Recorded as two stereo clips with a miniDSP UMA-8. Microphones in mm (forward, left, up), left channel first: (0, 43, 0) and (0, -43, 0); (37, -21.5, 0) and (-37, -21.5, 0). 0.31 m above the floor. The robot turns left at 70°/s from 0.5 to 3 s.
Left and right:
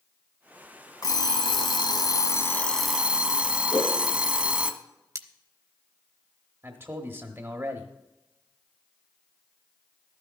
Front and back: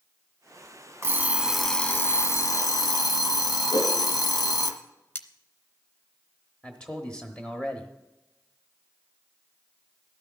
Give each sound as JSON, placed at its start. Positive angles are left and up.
{"t": 1.0, "sound": "an alarm clock", "azimuth_deg": 130, "distance_m": 1.3}
{"t": 3.7, "sound": "a whoosh", "azimuth_deg": 35, "distance_m": 4.5}
{"t": 5.2, "sound": "cutlery clinking", "azimuth_deg": -55, "distance_m": 0.8}
{"t": 6.6, "sound": "a man speaking", "azimuth_deg": -65, "distance_m": 1.0}